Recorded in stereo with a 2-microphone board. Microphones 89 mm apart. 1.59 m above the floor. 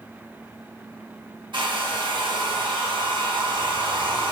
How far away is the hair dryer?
About 0.6 m.